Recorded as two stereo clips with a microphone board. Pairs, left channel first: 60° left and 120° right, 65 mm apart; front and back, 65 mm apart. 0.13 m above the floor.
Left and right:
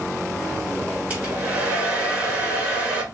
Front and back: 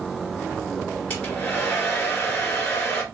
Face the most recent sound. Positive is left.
turn(degrees=-60)